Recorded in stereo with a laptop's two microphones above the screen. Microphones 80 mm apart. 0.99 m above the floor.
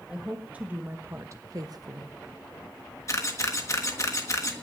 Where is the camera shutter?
40° left (ahead or behind), 1.5 m.